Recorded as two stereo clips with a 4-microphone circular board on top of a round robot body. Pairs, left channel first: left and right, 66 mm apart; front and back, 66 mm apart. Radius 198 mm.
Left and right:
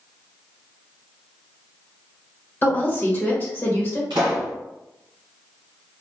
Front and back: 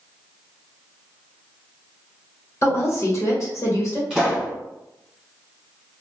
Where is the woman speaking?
40° left, 1.1 m.